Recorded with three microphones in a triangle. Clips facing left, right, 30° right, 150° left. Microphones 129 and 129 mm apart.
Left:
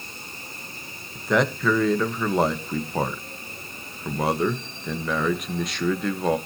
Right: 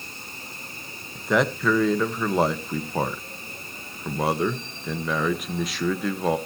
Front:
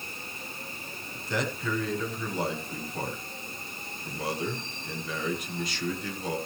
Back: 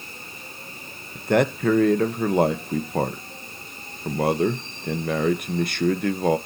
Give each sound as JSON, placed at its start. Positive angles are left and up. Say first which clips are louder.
{"t": 1.1, "sound": "a man speaking", "louder": "even, back 12 dB", "azimuth_deg": 180, "distance_m": 1.3}